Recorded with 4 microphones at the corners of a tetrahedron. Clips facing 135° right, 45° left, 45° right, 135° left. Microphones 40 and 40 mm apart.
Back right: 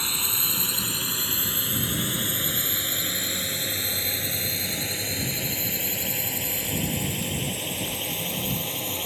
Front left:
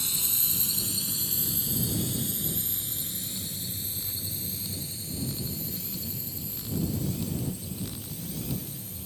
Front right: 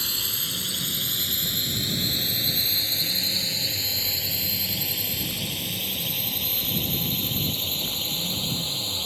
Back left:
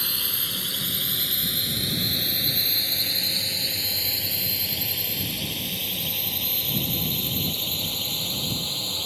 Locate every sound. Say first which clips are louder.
0.0 s a drone: back right 7 dB, back left 1 dB; 145° right; by 9.1 s 135° right